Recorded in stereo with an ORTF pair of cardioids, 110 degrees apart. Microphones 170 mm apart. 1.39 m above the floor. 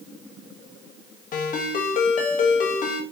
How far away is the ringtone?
About 1.9 m.